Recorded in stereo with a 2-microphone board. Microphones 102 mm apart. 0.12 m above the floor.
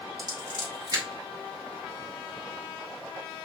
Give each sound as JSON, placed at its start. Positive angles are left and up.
{"t": 0.2, "sound": "scissors", "side_deg": -40, "distance_m": 2.0}